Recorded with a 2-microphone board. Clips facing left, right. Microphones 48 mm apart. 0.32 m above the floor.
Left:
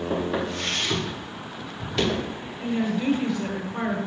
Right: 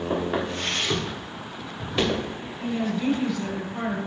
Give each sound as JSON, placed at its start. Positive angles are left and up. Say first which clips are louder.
{"t": 0.1, "sound": "footsteps", "louder": "right 1 dB", "side_deg": -25, "distance_m": 3.0}
{"t": 2.6, "sound": "a woman speaking", "louder": "left 1 dB", "side_deg": 20, "distance_m": 1.7}